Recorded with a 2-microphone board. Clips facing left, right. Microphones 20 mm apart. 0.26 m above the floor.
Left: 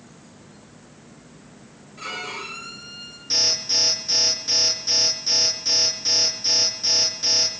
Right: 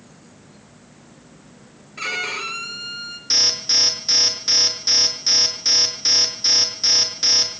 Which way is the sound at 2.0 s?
50° right (ahead or behind).